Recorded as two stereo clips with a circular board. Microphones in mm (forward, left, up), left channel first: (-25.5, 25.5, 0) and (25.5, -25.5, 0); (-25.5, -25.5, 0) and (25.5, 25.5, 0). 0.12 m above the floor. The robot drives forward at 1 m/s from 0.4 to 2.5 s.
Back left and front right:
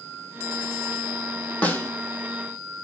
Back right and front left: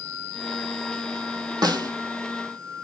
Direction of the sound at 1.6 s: 65° left.